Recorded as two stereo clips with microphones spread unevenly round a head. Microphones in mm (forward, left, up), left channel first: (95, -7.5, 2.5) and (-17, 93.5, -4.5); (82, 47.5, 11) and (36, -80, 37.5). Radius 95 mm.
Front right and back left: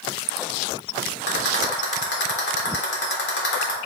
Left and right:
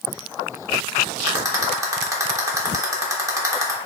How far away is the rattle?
About 3.5 m.